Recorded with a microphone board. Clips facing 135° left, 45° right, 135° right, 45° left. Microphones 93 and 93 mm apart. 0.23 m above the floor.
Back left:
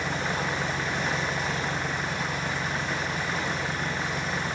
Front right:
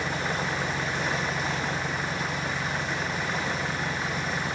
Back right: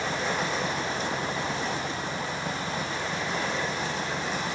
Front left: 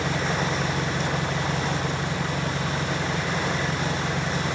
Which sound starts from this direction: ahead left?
An engine running, at 0.0 s.